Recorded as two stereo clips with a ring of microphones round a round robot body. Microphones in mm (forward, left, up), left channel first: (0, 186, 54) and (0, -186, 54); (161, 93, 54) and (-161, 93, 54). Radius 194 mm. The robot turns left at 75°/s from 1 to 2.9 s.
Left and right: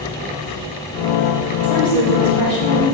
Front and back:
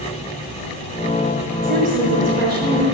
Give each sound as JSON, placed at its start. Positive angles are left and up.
{"t": 1.6, "sound": "a woman speaking", "azimuth_deg": -175, "distance_m": 3.5}